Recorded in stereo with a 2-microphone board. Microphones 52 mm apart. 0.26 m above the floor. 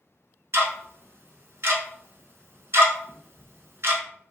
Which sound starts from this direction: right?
Ticking, at 0.5 s.